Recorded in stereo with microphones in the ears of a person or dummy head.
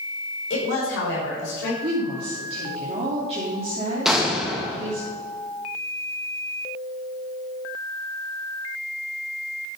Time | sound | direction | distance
0.5 | a woman speaking | 75° left (ahead or behind) | 4.5 m
1.8 | a woman speaking | 35° right (ahead or behind) | 2.5 m
4.0 | an explosion | 5° right (ahead or behind) | 1.8 m